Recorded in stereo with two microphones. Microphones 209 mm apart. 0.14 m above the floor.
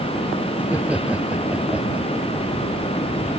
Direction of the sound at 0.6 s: 5° right (ahead or behind).